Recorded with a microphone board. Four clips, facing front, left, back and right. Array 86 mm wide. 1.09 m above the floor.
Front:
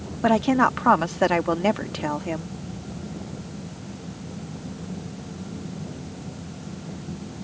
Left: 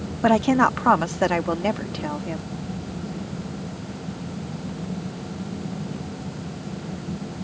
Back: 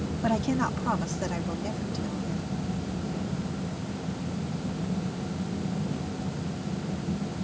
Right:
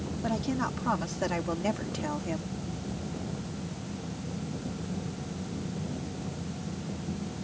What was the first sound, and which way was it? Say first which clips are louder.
A woman speaking: left 14 dB, front 8 dB; 60° left.